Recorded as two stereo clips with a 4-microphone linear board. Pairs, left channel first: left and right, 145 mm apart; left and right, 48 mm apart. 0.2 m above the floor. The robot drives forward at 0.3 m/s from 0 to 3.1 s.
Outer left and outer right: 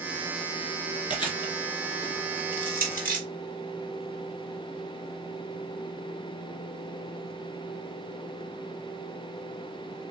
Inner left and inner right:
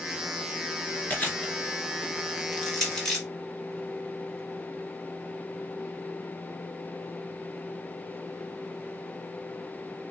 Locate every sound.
1.1 s chewing: 30° left (ahead or behind), 1.4 m; by 2.4 s 25° left (ahead or behind), 1.7 m
2.5 s crushing: 15° left (ahead or behind), 2 m; by 3.2 s 10° left (ahead or behind), 2 m